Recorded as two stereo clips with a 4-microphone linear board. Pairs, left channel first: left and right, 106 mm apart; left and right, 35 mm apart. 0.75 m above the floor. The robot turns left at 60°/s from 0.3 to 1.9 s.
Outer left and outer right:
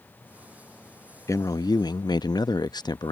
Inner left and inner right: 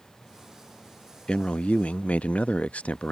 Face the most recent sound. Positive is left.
turn(degrees=95)